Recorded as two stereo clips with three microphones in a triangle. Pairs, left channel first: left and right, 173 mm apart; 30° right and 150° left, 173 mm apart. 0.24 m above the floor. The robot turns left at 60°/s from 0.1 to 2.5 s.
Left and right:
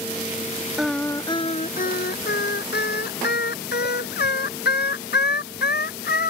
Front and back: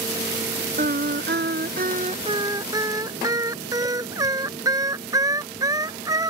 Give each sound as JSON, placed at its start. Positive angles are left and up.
{"t": 0.8, "sound": "singing", "azimuth_deg": -175}